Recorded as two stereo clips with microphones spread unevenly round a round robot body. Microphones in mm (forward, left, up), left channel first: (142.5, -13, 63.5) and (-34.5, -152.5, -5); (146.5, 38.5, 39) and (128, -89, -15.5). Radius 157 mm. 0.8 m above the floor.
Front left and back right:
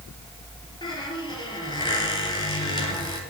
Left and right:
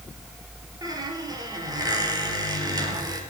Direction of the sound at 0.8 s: 30° right.